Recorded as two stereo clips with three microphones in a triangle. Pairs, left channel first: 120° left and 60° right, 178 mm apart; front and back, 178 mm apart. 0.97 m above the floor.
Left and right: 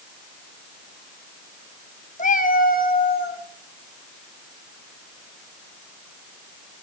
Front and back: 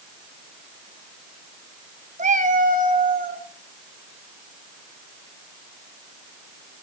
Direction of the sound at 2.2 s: 150° left.